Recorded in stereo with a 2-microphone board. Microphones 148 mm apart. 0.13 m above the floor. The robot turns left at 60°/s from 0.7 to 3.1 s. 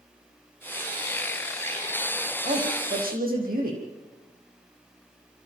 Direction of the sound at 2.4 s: 50° right.